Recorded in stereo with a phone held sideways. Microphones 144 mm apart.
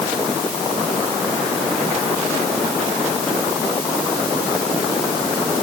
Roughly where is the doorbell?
No doorbell in this recording.